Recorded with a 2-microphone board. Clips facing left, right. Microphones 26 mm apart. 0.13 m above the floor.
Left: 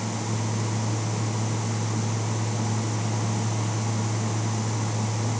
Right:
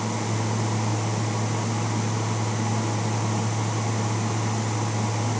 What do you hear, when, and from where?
Only background noise.